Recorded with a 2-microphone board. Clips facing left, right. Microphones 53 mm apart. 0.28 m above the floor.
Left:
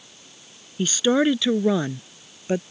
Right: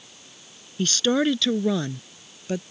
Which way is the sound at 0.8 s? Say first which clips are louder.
Left 2 dB; 10° left (ahead or behind).